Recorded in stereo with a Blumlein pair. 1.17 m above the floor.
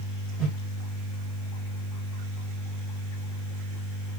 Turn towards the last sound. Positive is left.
turn(degrees=-5)